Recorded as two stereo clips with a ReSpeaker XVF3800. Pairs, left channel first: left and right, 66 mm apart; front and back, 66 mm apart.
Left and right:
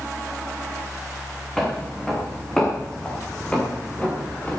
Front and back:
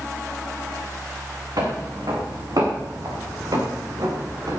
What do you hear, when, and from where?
1.6 s footsteps: 175° left, 5 m; by 4.6 s 155° left, 5 m